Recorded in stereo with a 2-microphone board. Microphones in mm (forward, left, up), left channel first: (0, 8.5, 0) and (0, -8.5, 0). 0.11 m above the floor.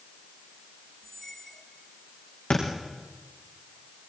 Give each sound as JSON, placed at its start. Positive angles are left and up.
{"t": 1.0, "sound": "a squeak", "side_deg": 20, "distance_m": 4.0}
{"t": 2.5, "sound": "a thud", "side_deg": 80, "distance_m": 7.0}